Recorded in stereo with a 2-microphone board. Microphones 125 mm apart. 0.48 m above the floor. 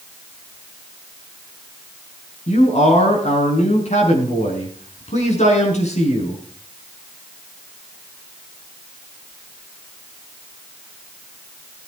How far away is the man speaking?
About 5.5 m.